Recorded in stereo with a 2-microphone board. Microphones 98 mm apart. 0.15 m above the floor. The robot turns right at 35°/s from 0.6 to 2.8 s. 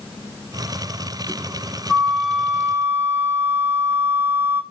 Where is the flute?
175° left, 0.9 m; by 4.6 s 155° right, 0.9 m.